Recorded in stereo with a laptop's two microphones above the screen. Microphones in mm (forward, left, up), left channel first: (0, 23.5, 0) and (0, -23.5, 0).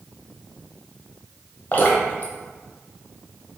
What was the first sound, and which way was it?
Dripping, 35° left (ahead or behind).